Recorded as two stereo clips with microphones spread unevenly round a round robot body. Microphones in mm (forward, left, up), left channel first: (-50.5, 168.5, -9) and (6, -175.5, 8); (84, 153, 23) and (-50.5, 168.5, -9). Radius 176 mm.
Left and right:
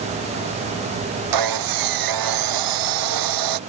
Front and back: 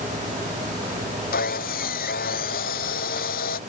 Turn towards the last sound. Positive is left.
turn(degrees=-45)